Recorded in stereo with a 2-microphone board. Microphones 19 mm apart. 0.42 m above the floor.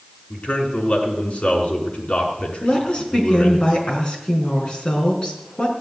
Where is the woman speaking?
50° left (ahead or behind), 5 m.